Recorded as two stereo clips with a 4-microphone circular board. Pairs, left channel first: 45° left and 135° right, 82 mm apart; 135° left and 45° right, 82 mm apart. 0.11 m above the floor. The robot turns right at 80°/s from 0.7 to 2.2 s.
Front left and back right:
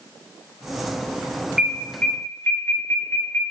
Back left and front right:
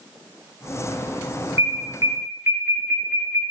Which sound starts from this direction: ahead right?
An alarm, at 1.6 s.